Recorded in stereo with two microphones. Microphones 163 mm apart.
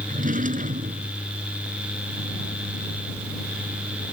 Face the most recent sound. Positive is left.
turn(degrees=-55)  # may be behind; listen again after turning